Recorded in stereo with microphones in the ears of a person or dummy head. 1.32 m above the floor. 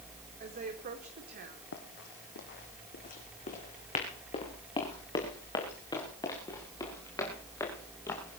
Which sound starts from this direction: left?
Running footsteps, at 1.7 s.